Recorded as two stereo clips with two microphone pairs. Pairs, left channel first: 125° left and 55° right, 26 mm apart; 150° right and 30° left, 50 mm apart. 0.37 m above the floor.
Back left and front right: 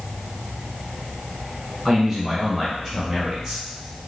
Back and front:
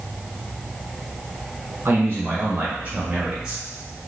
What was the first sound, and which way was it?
A man speaking, 25° left.